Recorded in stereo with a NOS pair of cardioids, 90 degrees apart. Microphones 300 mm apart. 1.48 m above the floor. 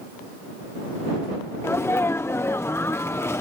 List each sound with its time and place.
1.6 s a sneeze: 10° left